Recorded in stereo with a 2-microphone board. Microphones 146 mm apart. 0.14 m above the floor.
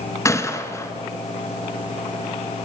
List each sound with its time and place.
0.2 s a gunshot: 20° left (ahead or behind), 1.0 m